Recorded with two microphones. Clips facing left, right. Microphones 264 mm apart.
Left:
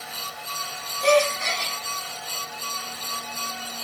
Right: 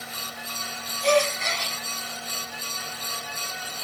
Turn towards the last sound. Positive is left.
turn(degrees=80)